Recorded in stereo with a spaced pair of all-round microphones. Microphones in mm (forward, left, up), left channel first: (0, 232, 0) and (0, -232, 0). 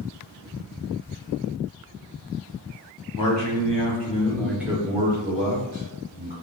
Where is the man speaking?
45° left (ahead or behind), 1.0 m; by 6.3 s 45° right (ahead or behind), 1.3 m.